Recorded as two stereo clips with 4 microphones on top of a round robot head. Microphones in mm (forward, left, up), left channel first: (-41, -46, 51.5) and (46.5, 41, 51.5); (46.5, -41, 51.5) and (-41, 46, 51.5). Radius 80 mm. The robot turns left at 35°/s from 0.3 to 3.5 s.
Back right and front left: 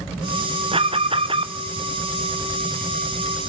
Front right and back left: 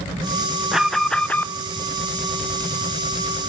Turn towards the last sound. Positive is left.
turn(degrees=-45)